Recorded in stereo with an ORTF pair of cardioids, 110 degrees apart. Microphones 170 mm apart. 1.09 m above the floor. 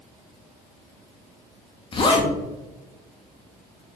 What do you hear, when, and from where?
1.9 s a zipper: 35° left, 0.7 m